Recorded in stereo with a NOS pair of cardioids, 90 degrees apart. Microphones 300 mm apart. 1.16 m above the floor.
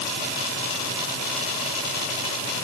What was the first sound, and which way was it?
Only background noise.